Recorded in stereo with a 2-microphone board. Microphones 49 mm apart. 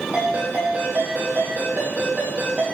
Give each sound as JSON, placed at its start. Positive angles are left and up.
{"t": 0.1, "sound": "a ringtone", "side_deg": -35, "distance_m": 4.5}